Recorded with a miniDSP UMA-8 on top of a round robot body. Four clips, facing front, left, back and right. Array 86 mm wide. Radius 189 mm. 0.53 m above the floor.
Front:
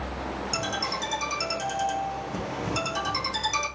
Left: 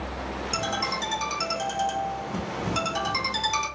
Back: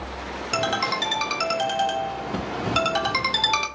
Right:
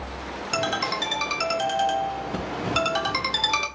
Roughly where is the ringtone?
Behind right.